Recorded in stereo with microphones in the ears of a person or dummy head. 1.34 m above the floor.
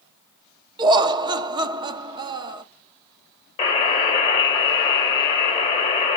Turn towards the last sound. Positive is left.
turn(degrees=30)  # may be behind; listen again after turning